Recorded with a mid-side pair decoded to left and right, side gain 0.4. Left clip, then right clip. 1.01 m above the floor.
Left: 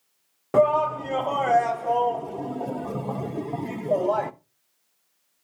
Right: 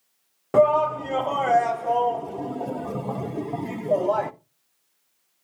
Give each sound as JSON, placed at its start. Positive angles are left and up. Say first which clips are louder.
{"t": 0.5, "sound": "a shout", "louder": "right 2 dB", "azimuth_deg": 0, "distance_m": 0.9}